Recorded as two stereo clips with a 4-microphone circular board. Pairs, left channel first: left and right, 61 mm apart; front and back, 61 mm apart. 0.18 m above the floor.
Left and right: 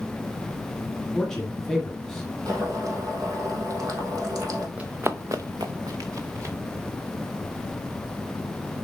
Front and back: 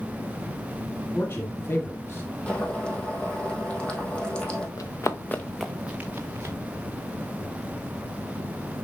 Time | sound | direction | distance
1.1 | a man speaking | 10° left | 1.4 m
2.5 | boiling | 70° right | 2.5 m
4.8 | running footsteps | 25° right | 1.4 m